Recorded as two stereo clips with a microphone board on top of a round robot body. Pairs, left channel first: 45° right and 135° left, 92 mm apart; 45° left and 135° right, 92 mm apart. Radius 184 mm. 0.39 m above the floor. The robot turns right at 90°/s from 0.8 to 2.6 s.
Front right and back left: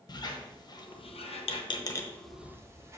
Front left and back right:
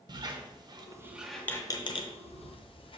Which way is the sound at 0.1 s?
90° right.